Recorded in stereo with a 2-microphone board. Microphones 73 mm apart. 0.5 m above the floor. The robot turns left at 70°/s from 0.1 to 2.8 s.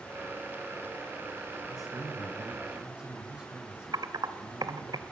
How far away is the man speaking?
About 4.5 m.